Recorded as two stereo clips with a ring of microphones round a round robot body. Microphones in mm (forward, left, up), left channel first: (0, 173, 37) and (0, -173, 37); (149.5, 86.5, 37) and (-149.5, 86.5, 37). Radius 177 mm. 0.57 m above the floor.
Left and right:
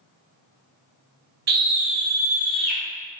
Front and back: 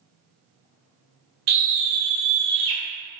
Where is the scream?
150° right, 1.2 m; by 2.8 s 175° left, 1.5 m.